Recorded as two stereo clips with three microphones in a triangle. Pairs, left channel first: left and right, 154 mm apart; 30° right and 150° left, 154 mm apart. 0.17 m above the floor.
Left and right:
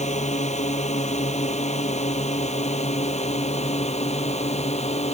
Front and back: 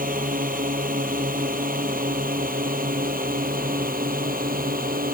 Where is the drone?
130° left; by 5.2 s 135° left.